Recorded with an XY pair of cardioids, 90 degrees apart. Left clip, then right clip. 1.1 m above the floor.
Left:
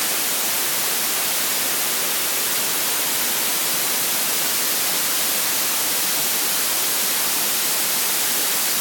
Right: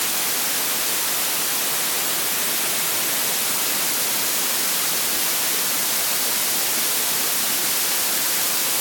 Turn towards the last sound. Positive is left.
No sound to turn to.